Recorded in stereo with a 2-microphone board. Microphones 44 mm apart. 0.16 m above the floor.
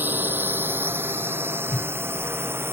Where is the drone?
50° right (ahead or behind); by 2.7 s 70° right (ahead or behind).